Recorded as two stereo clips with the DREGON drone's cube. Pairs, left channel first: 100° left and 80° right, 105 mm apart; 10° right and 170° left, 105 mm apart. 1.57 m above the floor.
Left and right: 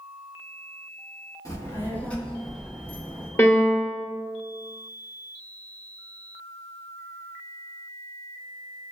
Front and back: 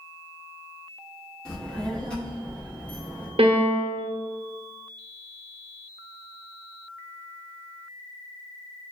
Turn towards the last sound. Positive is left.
turn(degrees=165)